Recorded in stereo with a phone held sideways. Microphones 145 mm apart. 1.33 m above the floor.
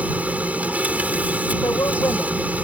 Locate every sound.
0.0 s a machine running: 10° right (ahead or behind)
1.6 s a woman speaking: 20° left (ahead or behind)